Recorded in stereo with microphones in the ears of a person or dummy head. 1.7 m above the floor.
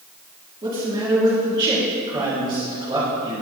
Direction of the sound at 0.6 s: 20° right (ahead or behind).